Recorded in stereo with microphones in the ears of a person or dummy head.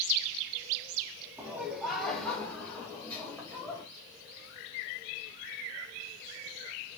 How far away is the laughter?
About 1.2 m.